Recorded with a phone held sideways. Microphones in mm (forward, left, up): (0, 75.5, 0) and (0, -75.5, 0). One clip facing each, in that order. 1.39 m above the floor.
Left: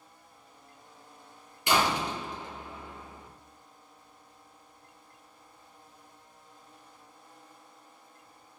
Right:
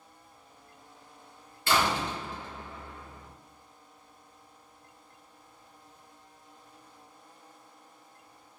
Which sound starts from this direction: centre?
A door slam, at 1.7 s.